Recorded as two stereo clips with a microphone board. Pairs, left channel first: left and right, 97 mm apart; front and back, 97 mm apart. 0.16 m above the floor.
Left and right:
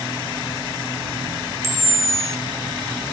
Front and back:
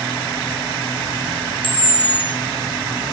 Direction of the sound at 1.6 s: 30° right.